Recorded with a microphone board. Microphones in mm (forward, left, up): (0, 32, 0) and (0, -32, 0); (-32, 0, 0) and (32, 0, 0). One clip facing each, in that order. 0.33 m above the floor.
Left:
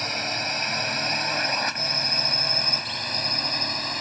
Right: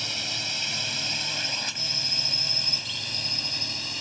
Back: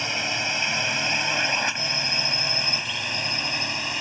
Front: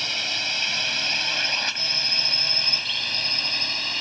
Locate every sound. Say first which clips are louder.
0.0 s a drone: left 6 dB, back 3 dB; 115° left; by 4.0 s 110° left